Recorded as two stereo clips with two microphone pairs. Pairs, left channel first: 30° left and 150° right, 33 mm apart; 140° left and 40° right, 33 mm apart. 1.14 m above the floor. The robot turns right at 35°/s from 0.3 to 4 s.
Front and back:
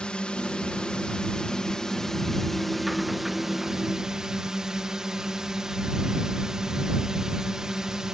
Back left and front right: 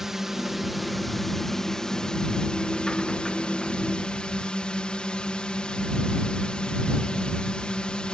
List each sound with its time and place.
0.0 s a drone: 25° left; by 8.1 s 155° left